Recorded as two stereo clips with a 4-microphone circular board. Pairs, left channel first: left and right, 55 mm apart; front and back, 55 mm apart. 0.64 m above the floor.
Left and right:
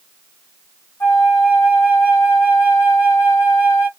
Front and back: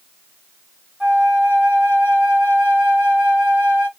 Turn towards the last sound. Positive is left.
turn(degrees=115)